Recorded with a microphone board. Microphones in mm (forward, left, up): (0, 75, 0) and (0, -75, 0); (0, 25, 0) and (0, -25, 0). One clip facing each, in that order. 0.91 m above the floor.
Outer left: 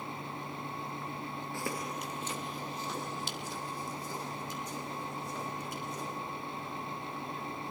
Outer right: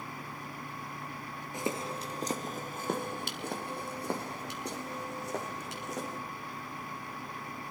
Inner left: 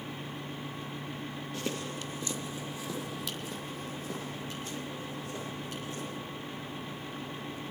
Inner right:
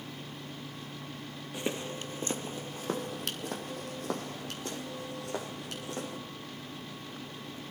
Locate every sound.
1.5 s footsteps: 15° right (ahead or behind), 0.9 m; by 6.2 s 70° right (ahead or behind), 3 m